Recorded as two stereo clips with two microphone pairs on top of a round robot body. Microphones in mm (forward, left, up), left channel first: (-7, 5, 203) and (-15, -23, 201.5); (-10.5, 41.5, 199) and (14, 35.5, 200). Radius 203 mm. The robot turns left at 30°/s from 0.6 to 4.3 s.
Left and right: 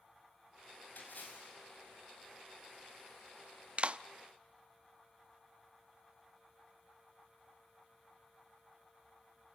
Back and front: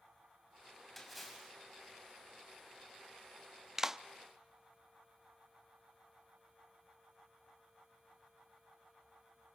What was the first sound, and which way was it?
A splash, 85° left.